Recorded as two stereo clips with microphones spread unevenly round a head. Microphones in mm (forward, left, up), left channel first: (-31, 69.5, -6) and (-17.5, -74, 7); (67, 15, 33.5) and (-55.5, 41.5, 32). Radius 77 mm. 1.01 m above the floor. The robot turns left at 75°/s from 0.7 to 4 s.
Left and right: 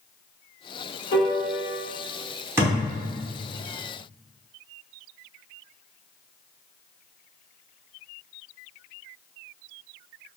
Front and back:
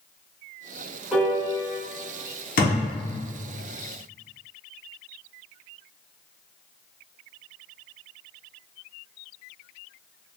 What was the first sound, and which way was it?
A piano, 90° left.